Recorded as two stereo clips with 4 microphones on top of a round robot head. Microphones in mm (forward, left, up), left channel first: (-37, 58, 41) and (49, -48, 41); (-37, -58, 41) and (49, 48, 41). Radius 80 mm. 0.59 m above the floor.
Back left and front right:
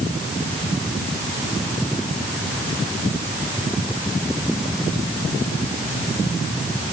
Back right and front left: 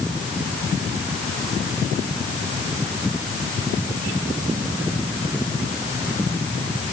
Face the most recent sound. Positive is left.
No sound to turn to.